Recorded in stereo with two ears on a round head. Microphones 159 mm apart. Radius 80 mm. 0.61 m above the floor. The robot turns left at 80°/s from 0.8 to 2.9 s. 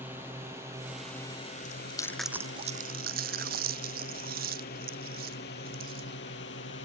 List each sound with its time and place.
0.0 s a drone: 10° right (ahead or behind); by 6.8 s 70° left (ahead or behind)
1.6 s chewing: 50° left (ahead or behind); by 6.2 s 55° right (ahead or behind)